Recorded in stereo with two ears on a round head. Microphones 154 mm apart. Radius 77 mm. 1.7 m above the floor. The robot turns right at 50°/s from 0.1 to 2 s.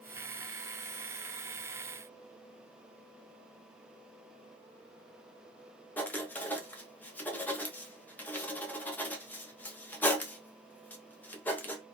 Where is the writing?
10° left (ahead or behind), 0.6 m.